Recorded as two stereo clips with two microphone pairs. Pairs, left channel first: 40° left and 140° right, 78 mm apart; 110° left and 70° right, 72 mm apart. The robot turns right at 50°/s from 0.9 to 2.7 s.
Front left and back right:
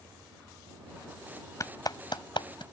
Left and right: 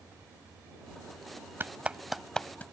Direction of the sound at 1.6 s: 10° right.